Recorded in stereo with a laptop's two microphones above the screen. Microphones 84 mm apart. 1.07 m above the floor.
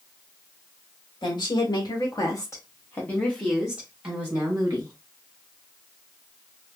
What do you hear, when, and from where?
1.2 s a woman speaking: 65° left (ahead or behind), 1.5 m; by 4.9 s 35° right (ahead or behind), 1.5 m